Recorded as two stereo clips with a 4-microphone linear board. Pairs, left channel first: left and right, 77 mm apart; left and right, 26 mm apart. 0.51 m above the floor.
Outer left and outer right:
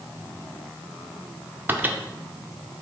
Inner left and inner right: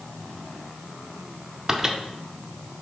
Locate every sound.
1.7 s a microwave: 25° right (ahead or behind), 0.6 m